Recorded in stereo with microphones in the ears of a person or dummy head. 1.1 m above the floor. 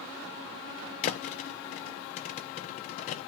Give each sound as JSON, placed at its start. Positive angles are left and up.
{"t": 1.0, "sound": "a thud", "side_deg": 45, "distance_m": 0.6}